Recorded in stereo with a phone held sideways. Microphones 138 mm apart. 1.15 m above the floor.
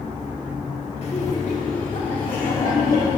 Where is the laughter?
45° left (ahead or behind), 1.7 m; by 3.1 s 75° left (ahead or behind), 3 m.